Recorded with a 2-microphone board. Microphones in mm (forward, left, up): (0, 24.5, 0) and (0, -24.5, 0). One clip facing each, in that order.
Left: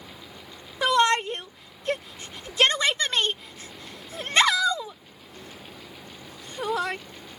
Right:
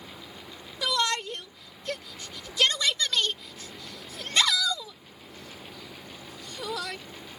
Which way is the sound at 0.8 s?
35° left (ahead or behind).